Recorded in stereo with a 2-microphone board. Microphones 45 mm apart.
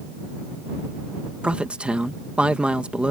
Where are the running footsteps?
No running footsteps in this recording.